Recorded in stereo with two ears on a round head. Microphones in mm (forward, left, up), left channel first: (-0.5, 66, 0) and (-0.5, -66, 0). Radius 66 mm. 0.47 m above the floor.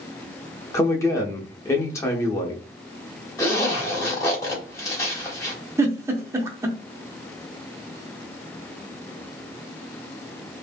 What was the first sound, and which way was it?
A man speaking, 20° left (ahead or behind).